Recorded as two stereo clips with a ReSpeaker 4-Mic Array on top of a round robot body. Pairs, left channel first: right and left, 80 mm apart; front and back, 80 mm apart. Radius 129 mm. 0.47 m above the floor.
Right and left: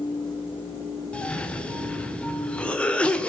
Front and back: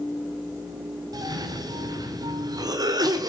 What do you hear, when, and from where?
1.1 s a cough: 165° right, 1.8 m